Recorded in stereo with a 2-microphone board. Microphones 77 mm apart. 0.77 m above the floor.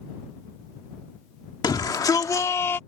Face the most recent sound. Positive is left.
turn(degrees=25)  # may be behind; listen again after turning